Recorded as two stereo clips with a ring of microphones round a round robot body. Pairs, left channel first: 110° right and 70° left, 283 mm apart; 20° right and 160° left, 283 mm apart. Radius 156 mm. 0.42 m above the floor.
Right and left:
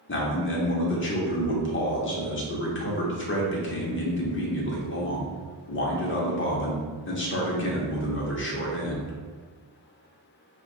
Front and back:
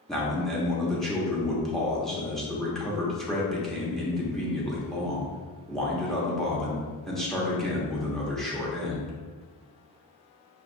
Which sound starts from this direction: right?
A man speaking, at 0.1 s.